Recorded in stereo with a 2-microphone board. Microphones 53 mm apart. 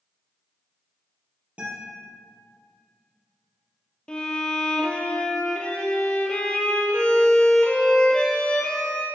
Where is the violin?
15° left (ahead or behind), 1.0 m.